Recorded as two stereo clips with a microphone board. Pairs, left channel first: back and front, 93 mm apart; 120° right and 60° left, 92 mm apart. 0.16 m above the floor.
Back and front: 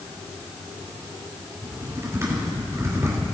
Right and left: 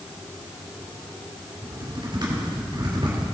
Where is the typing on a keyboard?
55° left, 3.5 m.